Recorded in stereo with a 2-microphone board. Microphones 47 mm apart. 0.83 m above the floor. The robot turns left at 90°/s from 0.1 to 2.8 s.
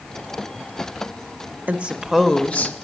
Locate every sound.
1.7 s a woman speaking: 140° right, 1.0 m; by 2.7 s 125° left, 1.0 m